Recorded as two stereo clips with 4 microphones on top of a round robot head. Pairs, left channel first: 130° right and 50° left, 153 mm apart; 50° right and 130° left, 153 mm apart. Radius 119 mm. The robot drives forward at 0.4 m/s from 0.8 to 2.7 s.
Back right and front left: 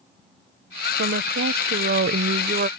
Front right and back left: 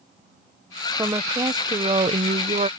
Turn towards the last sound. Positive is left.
turn(degrees=80)